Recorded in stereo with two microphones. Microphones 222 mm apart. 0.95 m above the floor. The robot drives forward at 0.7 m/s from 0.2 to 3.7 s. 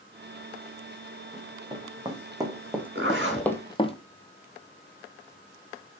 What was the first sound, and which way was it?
Running footsteps, 20° right (ahead or behind).